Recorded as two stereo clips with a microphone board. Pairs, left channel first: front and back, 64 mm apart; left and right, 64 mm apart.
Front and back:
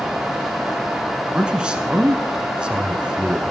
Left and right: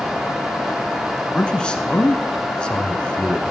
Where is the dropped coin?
No dropped coin in this recording.